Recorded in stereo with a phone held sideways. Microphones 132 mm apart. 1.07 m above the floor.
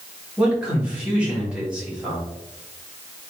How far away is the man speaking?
About 2.0 m.